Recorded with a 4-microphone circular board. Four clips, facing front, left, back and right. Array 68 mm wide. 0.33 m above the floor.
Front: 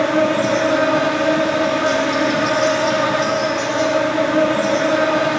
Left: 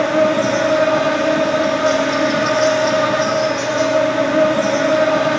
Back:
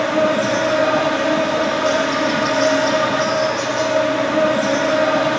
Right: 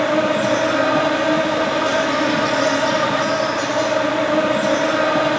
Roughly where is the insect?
Right.